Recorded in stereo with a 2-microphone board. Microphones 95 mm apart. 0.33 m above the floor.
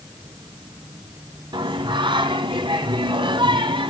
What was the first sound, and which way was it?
Singing, 55° right (ahead or behind).